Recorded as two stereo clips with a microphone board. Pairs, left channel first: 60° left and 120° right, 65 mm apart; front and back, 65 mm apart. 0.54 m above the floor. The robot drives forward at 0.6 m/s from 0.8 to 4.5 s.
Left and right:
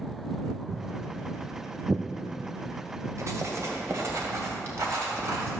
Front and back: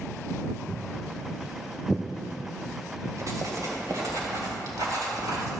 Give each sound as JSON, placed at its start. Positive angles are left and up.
{"t": 0.7, "sound": "footsteps", "azimuth_deg": -90, "distance_m": 2.0}
{"t": 3.2, "sound": "writing", "azimuth_deg": -150, "distance_m": 2.5}